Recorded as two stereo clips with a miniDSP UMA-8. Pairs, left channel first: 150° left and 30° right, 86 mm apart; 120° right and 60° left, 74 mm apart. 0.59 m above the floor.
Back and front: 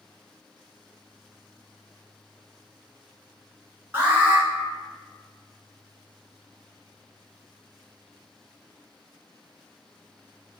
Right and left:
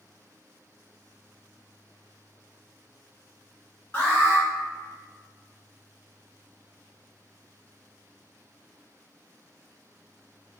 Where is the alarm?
80° right, 1.2 m.